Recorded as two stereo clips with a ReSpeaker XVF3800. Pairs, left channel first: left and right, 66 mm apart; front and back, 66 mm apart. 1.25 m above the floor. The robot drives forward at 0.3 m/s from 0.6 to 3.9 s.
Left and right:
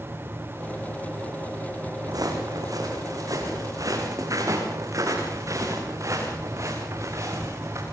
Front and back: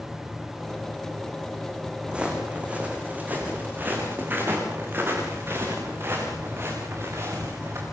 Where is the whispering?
No whispering in this recording.